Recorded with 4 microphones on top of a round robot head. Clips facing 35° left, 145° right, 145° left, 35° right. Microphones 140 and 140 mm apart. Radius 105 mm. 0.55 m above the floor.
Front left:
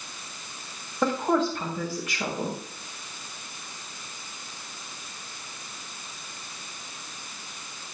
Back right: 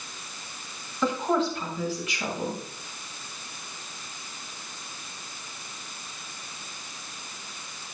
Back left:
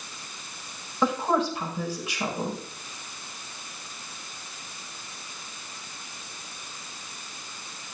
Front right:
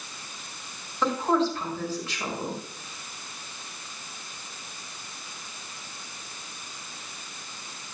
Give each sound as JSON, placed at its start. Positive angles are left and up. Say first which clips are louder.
{"t": 1.0, "sound": "a woman speaking", "louder": "front left 1 dB, even", "azimuth_deg": 70, "distance_m": 4.5}